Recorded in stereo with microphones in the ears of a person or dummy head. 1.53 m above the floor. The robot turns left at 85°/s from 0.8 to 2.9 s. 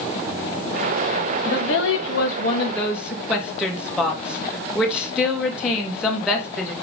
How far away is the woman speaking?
About 1.6 m.